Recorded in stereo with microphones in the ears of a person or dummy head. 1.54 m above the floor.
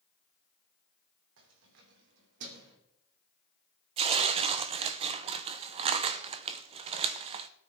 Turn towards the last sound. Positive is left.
turn(degrees=-30)  # may be behind; listen again after turning